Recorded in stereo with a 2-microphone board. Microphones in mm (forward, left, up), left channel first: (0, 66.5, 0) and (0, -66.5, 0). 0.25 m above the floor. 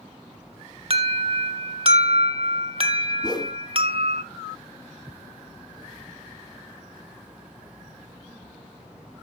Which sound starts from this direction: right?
An alarm, at 0.9 s.